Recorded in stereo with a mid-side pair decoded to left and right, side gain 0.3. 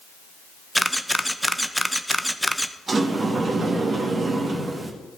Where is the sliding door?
55° right, 1.9 m.